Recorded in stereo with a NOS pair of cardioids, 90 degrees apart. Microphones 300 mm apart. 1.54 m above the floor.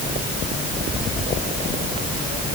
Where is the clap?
I don't hear a clap.